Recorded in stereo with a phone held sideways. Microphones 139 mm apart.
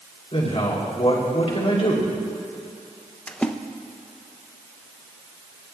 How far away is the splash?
About 0.5 m.